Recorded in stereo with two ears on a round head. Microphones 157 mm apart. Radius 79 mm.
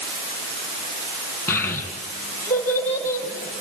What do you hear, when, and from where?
1.5 s a child speaking: 10° left (ahead or behind), 4 m